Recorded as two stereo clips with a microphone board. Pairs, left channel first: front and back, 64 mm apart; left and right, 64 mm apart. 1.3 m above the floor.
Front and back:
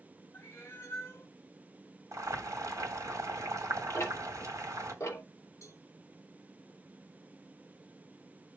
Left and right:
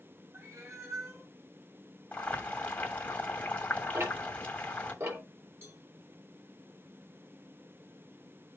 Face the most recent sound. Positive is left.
turn(degrees=-40)